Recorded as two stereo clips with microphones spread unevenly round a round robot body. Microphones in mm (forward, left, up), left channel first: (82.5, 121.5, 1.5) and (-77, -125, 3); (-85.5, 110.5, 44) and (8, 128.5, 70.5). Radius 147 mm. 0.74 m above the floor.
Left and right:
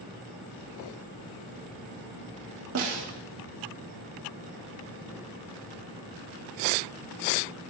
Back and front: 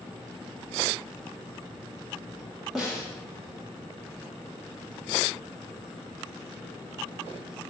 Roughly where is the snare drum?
Right.